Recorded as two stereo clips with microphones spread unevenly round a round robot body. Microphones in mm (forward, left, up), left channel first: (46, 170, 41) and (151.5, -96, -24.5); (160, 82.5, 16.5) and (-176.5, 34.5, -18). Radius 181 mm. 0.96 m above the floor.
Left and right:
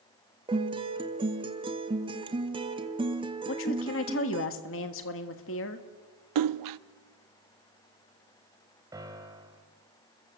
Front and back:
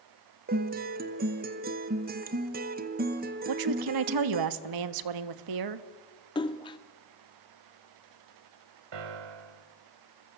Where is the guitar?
125° right, 1.0 m.